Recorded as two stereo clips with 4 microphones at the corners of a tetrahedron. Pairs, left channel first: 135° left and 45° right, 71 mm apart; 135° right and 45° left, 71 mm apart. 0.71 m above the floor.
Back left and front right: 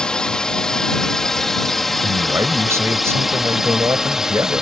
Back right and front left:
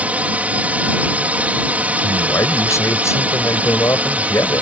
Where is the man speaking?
90° right.